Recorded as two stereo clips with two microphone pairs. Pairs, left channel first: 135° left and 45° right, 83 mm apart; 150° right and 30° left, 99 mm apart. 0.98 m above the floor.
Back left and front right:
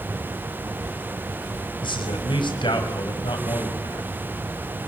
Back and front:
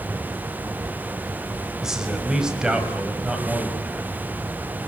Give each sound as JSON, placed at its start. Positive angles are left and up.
{"t": 1.8, "sound": "a man speaking", "azimuth_deg": 115, "distance_m": 5.0}